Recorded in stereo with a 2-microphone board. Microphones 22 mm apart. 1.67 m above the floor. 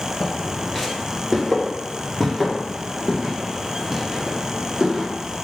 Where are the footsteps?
10° left (ahead or behind), 1.8 m; by 5.1 s 35° right (ahead or behind), 2.5 m.